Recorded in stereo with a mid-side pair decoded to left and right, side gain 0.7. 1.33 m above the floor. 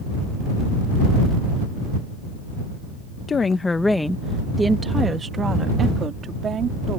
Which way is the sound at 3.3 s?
25° left.